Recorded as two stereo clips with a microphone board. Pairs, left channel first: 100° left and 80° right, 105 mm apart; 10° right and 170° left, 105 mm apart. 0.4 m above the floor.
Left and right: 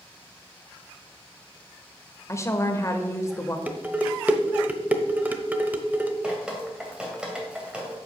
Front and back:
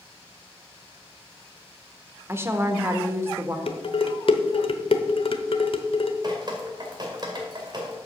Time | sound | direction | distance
2.3 | a woman speaking | 125° left | 1.0 m
3.7 | dishes clattering | 5° right | 0.9 m
6.2 | dripping | 155° right | 2 m